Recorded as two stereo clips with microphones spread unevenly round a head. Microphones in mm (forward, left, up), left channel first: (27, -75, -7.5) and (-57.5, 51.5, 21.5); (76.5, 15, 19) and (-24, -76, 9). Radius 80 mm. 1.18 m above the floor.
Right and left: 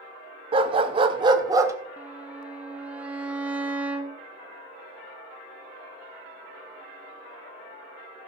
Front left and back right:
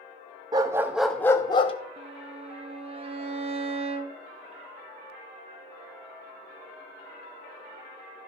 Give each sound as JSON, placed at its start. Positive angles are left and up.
{"t": 0.5, "sound": "a dog barking", "azimuth_deg": 160, "distance_m": 0.7}
{"t": 2.0, "sound": "a violin", "azimuth_deg": -145, "distance_m": 0.8}